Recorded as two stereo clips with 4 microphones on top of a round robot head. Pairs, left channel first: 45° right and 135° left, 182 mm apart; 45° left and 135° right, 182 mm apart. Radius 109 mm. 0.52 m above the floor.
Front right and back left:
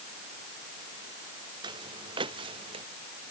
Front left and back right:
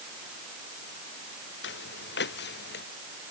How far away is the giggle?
No giggle in this recording.